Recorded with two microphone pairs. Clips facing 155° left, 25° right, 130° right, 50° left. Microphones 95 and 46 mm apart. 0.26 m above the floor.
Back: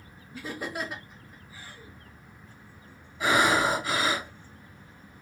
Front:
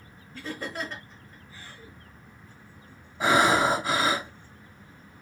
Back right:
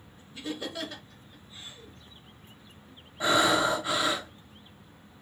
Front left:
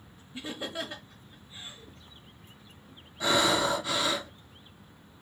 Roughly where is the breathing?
Right.